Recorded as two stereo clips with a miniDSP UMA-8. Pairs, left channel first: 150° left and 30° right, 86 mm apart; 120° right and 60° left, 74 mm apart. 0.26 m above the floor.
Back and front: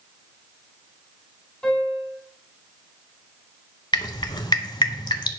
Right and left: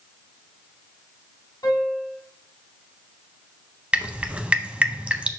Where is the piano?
135° right, 2.5 m.